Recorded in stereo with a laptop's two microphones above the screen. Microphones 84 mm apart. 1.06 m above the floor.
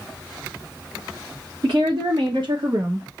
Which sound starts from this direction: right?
A woman speaking, at 1.6 s.